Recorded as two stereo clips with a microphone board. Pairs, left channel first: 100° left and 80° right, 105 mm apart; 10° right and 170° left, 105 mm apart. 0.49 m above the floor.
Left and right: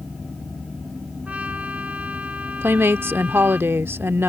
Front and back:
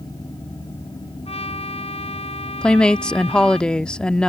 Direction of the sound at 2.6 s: 80° right.